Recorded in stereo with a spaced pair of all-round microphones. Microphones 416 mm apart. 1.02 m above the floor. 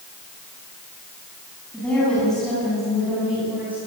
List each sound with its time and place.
1.7 s a woman speaking: 5° left (ahead or behind), 8.5 m; by 3.8 s 5° right (ahead or behind), 8 m